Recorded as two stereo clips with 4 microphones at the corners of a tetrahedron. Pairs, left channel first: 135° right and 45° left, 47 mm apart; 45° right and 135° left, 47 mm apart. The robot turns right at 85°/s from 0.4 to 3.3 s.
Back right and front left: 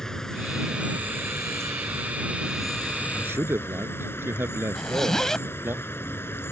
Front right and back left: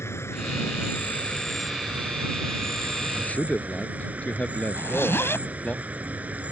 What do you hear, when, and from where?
0.0 s an insect: 55° right; by 6.5 s 170° right
3.1 s a man speaking: straight ahead; by 5.8 s 15° left
4.8 s a zipper: 55° right